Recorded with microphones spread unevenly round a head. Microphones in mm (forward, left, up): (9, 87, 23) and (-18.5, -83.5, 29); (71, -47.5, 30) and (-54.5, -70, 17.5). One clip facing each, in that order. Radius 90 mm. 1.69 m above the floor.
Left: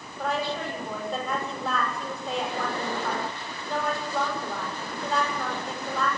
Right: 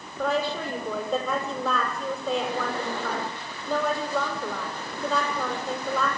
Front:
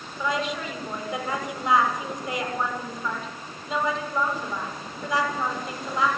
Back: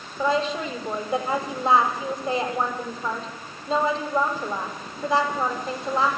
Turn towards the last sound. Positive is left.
turn(degrees=-110)